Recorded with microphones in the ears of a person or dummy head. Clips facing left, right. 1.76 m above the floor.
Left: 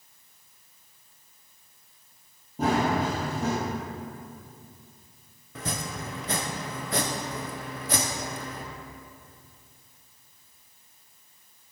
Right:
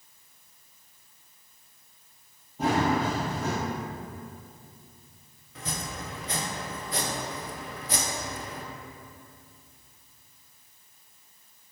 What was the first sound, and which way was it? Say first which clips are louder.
Running footsteps: even; 45° left (ahead or behind).